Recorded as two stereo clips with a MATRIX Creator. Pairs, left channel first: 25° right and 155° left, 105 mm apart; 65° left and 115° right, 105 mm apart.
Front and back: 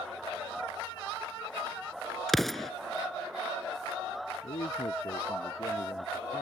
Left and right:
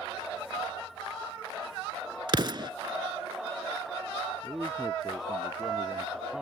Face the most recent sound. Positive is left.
turn(degrees=-25)